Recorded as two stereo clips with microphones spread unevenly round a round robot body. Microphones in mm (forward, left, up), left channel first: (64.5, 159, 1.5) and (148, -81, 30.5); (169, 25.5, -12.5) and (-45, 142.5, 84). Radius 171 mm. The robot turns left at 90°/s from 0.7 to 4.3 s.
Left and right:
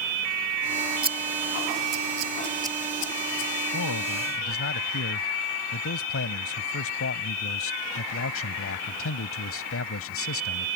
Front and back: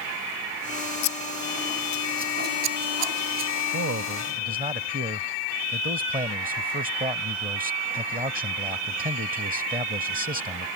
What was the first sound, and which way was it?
Scissors, 15° right.